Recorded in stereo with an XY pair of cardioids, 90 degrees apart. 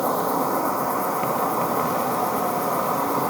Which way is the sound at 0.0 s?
5° left.